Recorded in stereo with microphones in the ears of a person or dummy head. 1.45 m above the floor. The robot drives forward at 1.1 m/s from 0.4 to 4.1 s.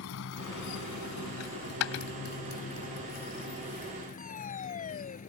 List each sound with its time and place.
0.0 s a motorcycle: 75° left (ahead or behind); by 5.3 s 45° left (ahead or behind)
1.4 s a dropped coin: 80° left; by 2.0 s 75° left (ahead or behind)
4.2 s a fire alarm: 40° left (ahead or behind)